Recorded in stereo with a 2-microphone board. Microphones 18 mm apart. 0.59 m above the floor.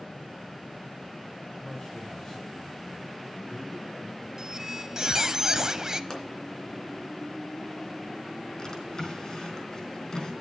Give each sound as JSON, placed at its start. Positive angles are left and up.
{"t": 1.6, "sound": "a man speaking", "side_deg": 30, "distance_m": 2.5}
{"t": 4.4, "sound": "a squeak", "side_deg": -35, "distance_m": 0.7}
{"t": 6.1, "sound": "a pop", "side_deg": 30, "distance_m": 2.5}
{"t": 8.6, "sound": "a drawer", "side_deg": 40, "distance_m": 4.5}